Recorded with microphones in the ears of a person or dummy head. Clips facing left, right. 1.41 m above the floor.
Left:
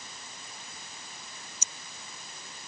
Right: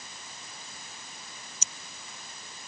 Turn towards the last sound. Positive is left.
turn(degrees=-65)  # may be behind; listen again after turning